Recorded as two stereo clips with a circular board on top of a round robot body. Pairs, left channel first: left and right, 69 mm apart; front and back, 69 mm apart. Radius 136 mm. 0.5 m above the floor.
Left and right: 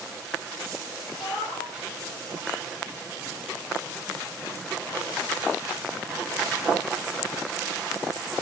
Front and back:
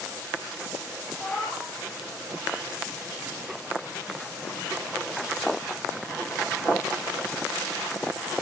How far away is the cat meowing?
About 6 m.